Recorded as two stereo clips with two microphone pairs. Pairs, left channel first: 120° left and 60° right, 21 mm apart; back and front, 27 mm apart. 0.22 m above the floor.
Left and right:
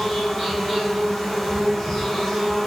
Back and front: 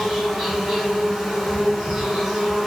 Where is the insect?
60° left, 1.7 m.